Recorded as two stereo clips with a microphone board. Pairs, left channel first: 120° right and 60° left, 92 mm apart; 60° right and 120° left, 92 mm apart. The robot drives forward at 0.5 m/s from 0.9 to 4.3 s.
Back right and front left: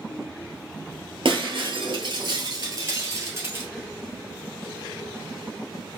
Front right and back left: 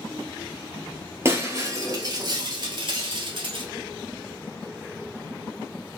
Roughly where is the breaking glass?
Ahead left.